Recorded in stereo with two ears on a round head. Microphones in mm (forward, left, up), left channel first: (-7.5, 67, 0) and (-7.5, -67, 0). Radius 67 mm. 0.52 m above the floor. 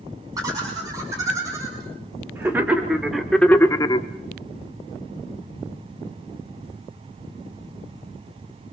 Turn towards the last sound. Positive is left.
turn(degrees=35)  # may be behind; listen again after turning